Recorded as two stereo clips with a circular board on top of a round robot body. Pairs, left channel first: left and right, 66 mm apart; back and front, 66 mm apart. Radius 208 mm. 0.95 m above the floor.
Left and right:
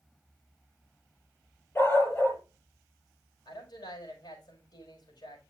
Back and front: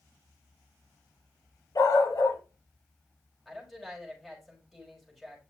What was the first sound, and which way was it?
A dog barking, 150° left.